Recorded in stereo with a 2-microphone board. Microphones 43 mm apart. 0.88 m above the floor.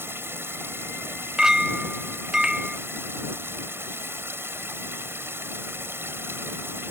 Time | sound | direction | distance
0.0 | running water | 70° right (ahead or behind) | ?
1.4 | a clink | 15° right (ahead or behind) | ?